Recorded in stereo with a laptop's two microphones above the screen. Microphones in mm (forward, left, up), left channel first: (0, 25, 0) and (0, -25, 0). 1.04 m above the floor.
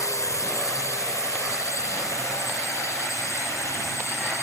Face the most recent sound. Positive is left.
turn(degrees=60)  # may be behind; listen again after turning